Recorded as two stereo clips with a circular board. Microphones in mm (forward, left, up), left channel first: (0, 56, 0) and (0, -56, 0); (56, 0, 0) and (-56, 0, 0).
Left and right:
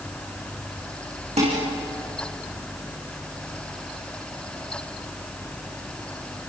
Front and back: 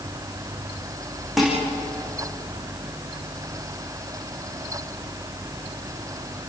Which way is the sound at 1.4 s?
95° right.